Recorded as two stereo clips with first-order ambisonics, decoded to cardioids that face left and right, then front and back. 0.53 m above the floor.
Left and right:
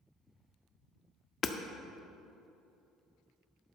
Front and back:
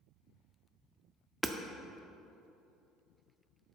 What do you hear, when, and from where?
1.4 s hammering: 105° left, 0.5 m